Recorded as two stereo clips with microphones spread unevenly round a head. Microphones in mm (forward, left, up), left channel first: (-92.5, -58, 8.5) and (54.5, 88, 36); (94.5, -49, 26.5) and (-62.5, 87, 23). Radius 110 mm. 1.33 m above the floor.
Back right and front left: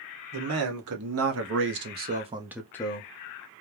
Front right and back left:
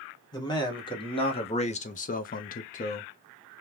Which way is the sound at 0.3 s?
30° left.